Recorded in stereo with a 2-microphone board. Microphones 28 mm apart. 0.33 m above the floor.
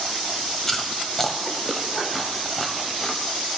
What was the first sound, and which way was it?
Chewing, 10° left (ahead or behind).